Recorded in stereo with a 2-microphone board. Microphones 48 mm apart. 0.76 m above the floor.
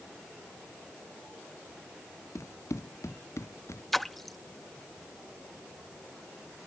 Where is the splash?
Centre (ahead or behind).